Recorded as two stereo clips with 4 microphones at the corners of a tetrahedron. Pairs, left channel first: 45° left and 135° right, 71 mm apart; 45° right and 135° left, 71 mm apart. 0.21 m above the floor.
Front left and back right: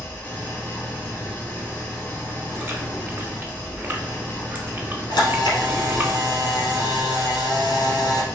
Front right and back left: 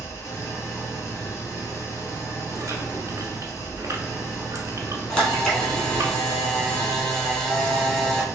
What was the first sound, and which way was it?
An engine running, 15° right.